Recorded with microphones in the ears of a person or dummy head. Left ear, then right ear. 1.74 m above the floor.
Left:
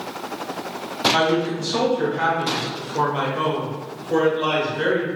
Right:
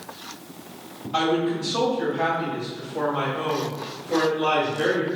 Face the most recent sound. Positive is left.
turn(degrees=30)  # may be behind; listen again after turning